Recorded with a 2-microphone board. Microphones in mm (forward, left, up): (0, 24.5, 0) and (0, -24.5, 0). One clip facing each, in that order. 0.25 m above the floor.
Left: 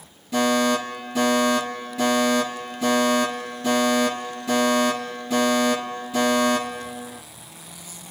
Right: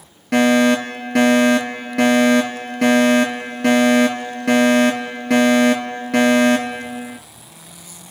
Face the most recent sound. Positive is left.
turn(degrees=-70)  # may be behind; listen again after turning